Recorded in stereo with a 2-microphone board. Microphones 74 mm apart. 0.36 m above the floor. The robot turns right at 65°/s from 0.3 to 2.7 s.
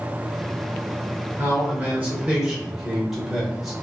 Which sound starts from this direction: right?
A man speaking, at 1.4 s.